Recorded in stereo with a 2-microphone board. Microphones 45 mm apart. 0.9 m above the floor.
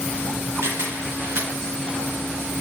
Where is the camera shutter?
75° right (ahead or behind), 3 m.